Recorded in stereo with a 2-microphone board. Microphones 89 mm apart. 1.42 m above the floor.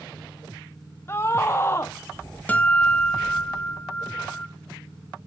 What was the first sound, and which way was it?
A scream, 30° left (ahead or behind).